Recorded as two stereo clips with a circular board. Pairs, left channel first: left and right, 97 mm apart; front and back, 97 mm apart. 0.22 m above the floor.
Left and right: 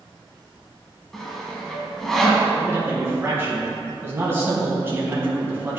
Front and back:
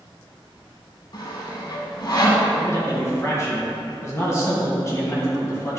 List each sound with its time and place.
1.1 s sawing: 5° left, 1.0 m
2.6 s a man speaking: 40° right, 1.7 m